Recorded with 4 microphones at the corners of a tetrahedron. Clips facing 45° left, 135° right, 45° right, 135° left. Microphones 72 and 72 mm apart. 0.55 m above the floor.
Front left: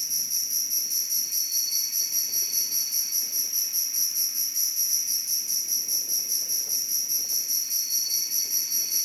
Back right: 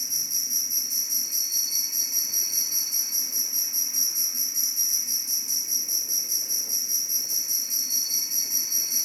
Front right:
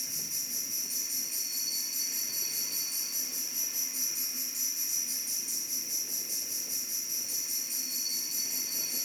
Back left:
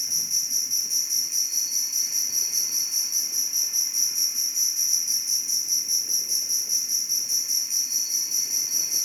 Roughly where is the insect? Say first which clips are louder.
Back right 1 dB, back left 6 dB; behind.